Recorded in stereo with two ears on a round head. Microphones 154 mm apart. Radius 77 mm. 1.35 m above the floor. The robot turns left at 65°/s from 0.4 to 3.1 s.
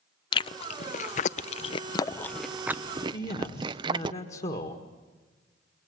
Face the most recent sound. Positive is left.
turn(degrees=40)  # may be behind; listen again after turning